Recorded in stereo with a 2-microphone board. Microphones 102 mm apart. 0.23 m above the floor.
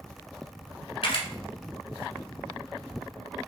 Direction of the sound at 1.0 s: 70° left (ahead or behind).